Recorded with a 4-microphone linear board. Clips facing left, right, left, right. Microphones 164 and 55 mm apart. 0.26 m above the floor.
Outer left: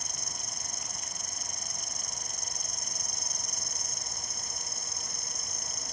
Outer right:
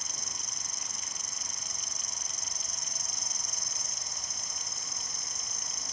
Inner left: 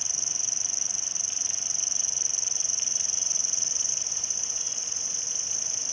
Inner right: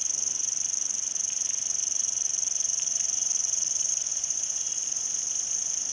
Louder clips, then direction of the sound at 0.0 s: Outer left 2 dB, inner left 3 dB; 45° left (ahead or behind).